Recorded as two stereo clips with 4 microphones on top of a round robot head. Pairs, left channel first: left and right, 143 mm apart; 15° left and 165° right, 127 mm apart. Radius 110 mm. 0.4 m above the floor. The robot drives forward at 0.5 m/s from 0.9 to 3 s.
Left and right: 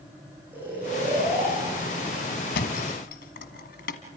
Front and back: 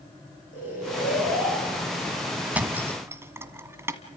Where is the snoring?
10° right, 10 m; by 2.2 s 15° right, 9 m.